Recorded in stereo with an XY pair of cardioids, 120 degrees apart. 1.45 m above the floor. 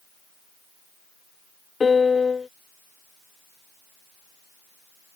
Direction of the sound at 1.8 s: 30° left.